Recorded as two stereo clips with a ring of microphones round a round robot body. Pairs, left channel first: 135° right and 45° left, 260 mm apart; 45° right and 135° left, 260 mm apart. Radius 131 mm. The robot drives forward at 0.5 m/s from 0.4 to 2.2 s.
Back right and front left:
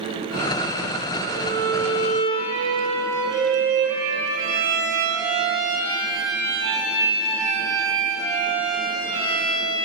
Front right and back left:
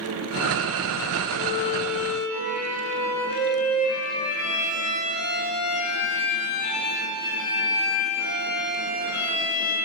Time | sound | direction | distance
1.3 | a violin | 30° right | 6 m